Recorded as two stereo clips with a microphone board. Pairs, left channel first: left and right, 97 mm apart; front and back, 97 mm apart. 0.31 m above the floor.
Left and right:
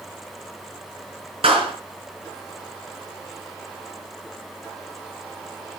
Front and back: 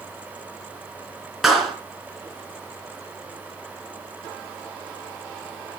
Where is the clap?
90° right, 3.5 m.